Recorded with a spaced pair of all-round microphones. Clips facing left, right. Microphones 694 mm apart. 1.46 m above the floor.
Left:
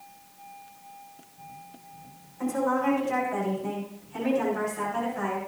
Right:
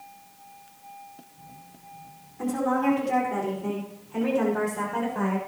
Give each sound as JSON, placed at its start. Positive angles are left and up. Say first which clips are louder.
{"t": 2.4, "sound": "a woman speaking", "louder": "right 1 dB", "side_deg": -70, "distance_m": 5.5}